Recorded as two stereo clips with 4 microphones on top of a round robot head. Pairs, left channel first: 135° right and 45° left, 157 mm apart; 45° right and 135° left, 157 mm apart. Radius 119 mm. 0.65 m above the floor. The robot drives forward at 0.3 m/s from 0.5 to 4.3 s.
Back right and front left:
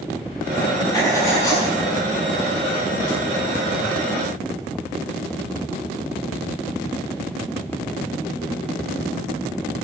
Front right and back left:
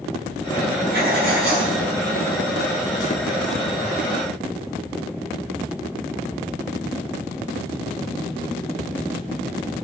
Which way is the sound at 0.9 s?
155° left.